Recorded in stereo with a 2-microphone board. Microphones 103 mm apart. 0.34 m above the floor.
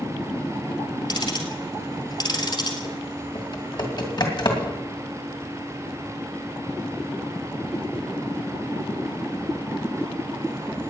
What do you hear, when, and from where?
1.1 s ticking: 45° left (ahead or behind), 2.0 m
3.4 s typing on a keyboard: 45° left (ahead or behind), 2.5 m